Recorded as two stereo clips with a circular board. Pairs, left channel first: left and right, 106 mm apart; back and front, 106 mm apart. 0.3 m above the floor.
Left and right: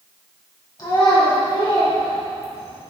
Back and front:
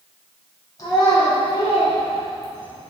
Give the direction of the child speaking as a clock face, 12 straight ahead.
8 o'clock.